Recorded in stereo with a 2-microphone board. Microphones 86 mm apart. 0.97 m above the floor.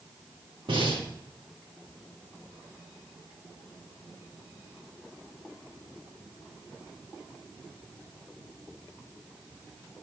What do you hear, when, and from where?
0.7 s breathing: 80° right, 3 m